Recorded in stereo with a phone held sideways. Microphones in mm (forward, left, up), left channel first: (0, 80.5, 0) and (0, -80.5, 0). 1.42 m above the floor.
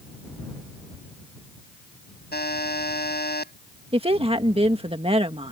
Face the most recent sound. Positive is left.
turn(degrees=-35)  # may be behind; listen again after turning